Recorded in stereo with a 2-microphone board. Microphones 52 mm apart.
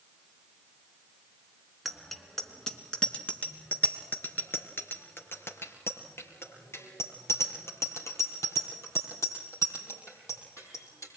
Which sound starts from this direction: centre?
A bicycle bell, at 1.9 s.